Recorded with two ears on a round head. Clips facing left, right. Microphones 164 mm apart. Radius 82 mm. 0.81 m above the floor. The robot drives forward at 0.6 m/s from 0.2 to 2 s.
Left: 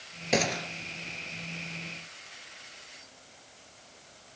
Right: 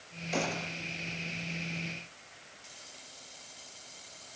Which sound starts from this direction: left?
A gunshot, at 0.3 s.